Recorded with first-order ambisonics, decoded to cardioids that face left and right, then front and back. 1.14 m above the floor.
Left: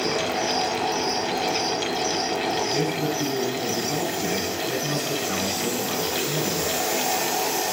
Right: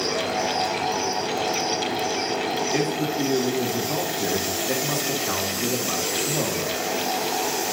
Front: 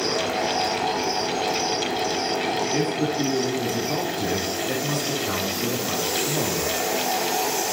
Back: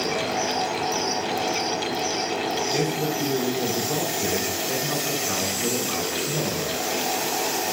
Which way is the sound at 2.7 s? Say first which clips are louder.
Even, front 1 dB; 55° right.